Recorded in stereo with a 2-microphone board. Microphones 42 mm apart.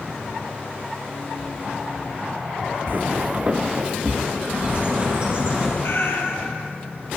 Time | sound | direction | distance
2.9 | footsteps | 55° right (ahead or behind) | 0.7 m
4.5 | a bird | 25° right (ahead or behind) | 4.5 m
5.8 | a cat meowing | 75° left (ahead or behind) | 1.5 m